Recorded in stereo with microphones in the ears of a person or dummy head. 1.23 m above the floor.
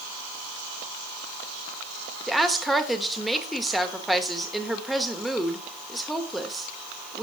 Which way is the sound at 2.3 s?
Centre (ahead or behind).